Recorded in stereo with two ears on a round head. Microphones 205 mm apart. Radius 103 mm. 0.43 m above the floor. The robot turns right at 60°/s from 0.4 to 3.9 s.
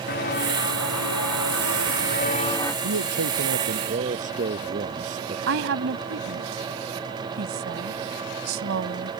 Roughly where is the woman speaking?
Right.